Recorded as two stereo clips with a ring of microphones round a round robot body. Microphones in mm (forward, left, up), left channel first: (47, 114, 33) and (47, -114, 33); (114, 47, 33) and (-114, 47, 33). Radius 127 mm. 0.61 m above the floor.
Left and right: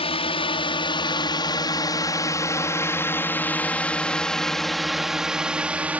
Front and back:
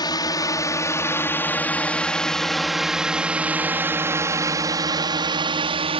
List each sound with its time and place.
0.0 s a drone: 55° left; by 6.0 s 165° right